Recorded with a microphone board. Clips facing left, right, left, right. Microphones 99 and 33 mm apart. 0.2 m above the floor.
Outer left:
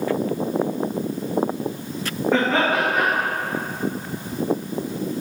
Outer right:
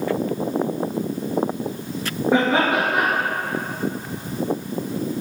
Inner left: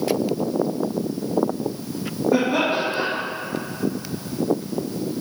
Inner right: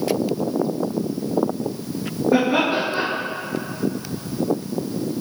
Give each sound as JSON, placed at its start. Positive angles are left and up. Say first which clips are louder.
{"t": 2.3, "sound": "laughter", "louder": "outer right 1 dB, inner right 2 dB", "side_deg": -15, "distance_m": 3.5}